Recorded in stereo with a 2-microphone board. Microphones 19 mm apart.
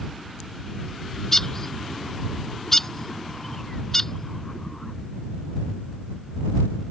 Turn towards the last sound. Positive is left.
turn(degrees=20)  # may be behind; listen again after turning